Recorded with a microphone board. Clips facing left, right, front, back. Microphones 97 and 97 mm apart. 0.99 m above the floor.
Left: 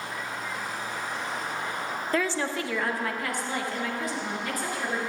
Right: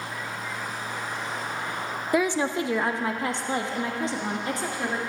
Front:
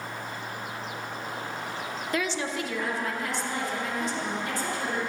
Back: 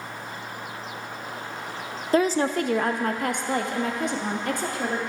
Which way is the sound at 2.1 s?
160° right.